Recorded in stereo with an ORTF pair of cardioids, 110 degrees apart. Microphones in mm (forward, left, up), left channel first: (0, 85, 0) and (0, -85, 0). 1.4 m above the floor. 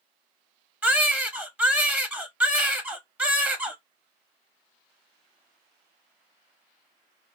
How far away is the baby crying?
About 0.7 m.